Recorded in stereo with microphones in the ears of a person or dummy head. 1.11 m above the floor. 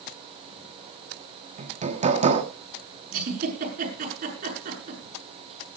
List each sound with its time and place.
1.6 s hammering: 35° right (ahead or behind), 1.5 m
3.1 s a giggle: 50° right (ahead or behind), 7.5 m